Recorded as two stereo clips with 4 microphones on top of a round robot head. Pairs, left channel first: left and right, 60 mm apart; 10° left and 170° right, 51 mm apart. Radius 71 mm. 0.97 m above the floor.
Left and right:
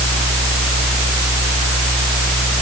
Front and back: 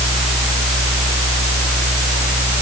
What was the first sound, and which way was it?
Only background noise.